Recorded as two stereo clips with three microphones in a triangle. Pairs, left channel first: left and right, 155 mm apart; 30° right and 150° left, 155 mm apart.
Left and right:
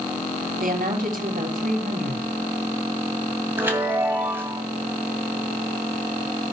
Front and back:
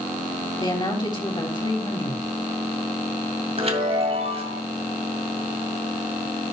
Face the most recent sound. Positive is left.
turn(degrees=-165)